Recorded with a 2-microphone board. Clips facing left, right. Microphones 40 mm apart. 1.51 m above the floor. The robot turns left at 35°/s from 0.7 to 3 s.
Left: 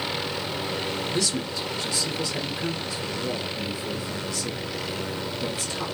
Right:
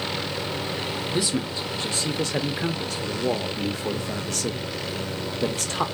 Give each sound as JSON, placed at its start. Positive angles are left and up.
{"t": 1.1, "sound": "a man speaking", "azimuth_deg": -20, "distance_m": 0.6}